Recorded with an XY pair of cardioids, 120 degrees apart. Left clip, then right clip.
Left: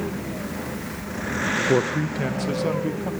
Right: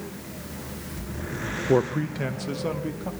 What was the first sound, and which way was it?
A man speaking, 5° right.